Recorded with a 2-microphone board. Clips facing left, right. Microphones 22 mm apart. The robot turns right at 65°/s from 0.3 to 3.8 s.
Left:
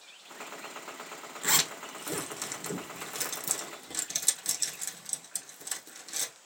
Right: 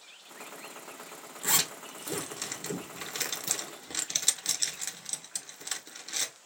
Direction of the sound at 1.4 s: 20° left (ahead or behind).